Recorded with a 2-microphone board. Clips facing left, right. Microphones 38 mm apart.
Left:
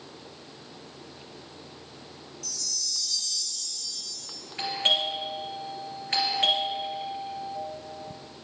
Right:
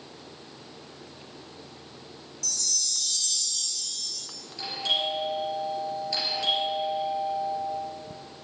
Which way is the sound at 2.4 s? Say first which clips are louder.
Right 3 dB; 65° right (ahead or behind).